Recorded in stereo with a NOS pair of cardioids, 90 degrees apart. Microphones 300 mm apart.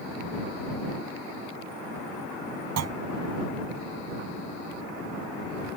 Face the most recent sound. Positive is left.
turn(degrees=-60)